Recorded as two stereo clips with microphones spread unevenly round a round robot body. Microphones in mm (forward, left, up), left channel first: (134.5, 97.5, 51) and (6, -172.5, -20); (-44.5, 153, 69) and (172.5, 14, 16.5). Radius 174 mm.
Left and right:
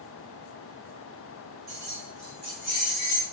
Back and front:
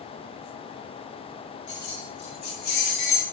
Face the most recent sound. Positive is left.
turn(degrees=125)